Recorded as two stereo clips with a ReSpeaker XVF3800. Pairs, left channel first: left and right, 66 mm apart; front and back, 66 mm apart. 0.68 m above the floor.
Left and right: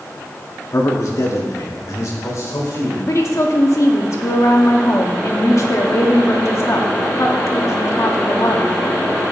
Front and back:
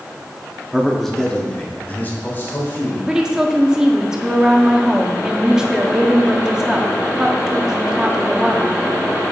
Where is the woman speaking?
105° left, 1.2 m.